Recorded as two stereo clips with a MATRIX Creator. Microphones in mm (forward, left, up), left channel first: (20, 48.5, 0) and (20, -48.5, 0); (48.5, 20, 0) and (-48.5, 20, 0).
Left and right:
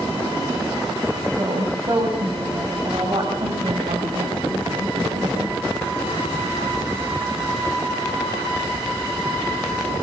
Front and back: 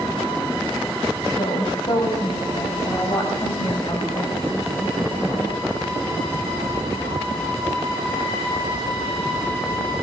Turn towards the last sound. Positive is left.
turn(degrees=-65)